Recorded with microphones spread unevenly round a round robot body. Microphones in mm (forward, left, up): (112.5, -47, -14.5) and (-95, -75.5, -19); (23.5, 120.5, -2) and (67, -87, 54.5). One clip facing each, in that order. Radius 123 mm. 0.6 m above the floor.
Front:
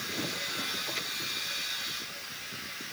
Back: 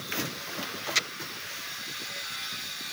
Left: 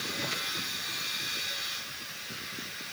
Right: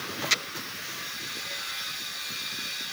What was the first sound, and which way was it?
Only background noise.